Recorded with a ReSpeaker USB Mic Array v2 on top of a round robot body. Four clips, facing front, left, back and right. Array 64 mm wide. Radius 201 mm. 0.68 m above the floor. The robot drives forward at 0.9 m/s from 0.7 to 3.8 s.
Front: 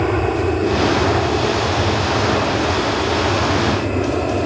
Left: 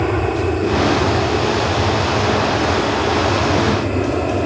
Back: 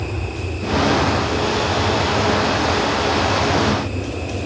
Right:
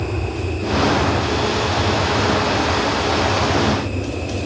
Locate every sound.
0.0 s an aircraft: 40° left; by 4.5 s 50° left